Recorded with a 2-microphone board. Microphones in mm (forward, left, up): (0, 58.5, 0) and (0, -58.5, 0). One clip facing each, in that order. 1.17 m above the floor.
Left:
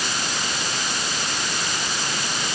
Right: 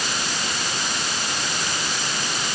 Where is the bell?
No bell in this recording.